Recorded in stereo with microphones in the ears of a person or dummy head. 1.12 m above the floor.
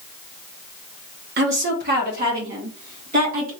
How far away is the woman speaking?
About 0.7 m.